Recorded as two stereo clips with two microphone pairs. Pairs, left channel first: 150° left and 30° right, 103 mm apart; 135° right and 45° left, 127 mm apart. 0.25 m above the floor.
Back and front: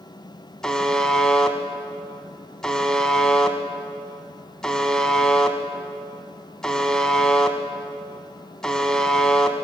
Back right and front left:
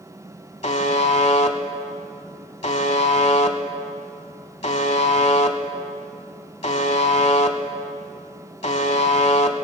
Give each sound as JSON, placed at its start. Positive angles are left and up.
{"t": 0.6, "sound": "a buzzer", "azimuth_deg": -125, "distance_m": 0.8}